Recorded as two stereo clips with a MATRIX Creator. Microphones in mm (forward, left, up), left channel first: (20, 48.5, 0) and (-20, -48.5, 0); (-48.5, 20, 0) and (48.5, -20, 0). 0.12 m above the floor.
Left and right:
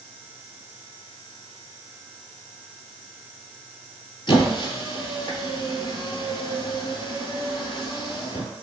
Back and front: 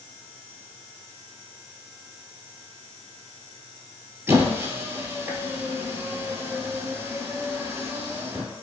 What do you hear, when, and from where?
4.3 s a squeak: 40° left, 0.7 m